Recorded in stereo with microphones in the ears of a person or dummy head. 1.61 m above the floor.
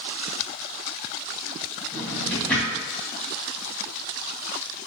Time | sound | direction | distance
1.9 | a drawer | 10° left (ahead or behind) | 1.2 m